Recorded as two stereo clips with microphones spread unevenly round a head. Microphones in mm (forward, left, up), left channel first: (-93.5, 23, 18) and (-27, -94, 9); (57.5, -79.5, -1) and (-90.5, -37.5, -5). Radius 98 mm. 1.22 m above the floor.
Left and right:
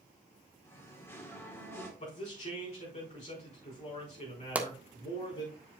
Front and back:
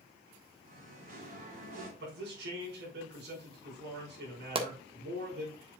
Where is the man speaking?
150° left, 5 m.